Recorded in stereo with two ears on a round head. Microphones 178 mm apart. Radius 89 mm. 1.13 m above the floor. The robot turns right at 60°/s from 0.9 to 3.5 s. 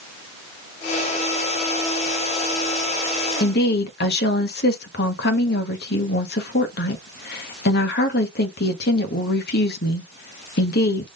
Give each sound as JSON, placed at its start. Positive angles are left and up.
{"t": 3.4, "sound": "a woman speaking", "side_deg": 45, "distance_m": 1.2}